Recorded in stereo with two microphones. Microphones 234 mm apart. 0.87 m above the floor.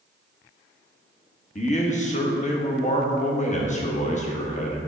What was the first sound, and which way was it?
A man speaking, 30° left (ahead or behind).